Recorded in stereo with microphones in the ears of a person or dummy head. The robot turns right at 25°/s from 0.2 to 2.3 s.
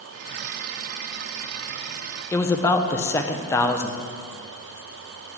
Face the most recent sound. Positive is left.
turn(degrees=15)  # may be behind; listen again after turning